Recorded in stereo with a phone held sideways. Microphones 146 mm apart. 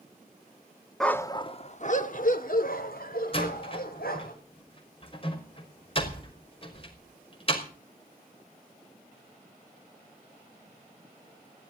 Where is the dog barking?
Centre (ahead or behind), 0.9 m; by 4.3 s 80° left, 4 m.